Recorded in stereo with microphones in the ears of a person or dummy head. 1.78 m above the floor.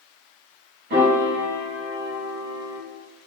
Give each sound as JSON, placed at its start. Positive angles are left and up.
{"t": 0.9, "sound": "a piano", "side_deg": -50, "distance_m": 1.7}